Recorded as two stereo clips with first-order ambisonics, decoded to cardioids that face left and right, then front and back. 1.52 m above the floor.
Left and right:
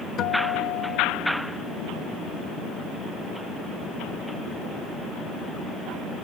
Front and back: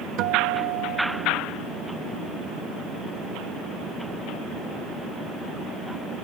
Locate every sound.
0.2 s a guitar: 140° left